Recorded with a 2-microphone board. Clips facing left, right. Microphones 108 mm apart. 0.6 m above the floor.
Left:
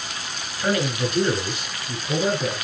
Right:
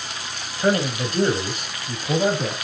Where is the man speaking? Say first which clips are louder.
Right 2 dB; 30° right (ahead or behind), 2.5 m; by 2.5 s 65° right (ahead or behind), 3 m.